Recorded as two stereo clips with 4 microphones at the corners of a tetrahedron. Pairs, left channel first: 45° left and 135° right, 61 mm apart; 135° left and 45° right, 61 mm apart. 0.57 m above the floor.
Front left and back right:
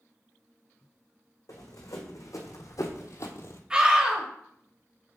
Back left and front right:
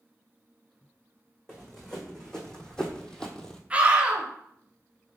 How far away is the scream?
About 1.1 m.